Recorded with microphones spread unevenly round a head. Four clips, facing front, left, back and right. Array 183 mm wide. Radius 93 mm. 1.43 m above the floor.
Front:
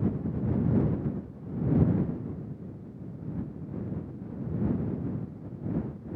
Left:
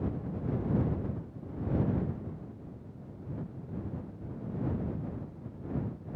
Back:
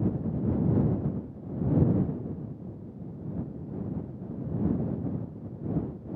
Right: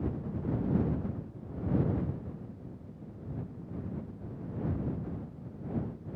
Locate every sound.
Only background noise.